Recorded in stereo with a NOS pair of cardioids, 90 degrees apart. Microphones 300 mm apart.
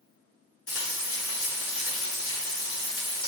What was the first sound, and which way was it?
Frying, 50° left.